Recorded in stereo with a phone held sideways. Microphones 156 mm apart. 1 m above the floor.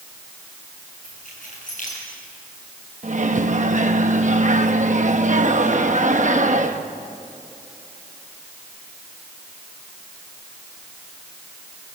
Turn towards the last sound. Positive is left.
turn(degrees=-50)  # may be behind; listen again after turning